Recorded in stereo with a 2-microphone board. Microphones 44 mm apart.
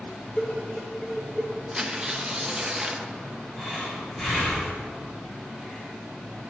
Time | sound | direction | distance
0.4 | dishes clattering | 30° left (ahead or behind) | 1.6 m
1.7 | tearing paper | 15° right (ahead or behind) | 0.8 m
3.6 | breathing | 15° left (ahead or behind) | 2.5 m